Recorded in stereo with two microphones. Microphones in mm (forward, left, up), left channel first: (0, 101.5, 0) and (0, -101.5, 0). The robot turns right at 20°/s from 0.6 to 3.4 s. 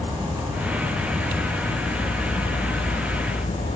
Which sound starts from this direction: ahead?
An insect, at 0.0 s.